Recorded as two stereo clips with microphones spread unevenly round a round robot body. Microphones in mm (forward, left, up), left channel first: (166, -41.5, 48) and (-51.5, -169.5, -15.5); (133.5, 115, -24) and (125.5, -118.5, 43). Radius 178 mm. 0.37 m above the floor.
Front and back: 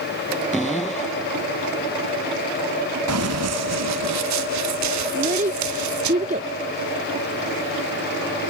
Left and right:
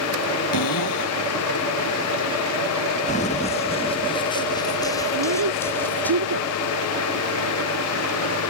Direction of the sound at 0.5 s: 120° left.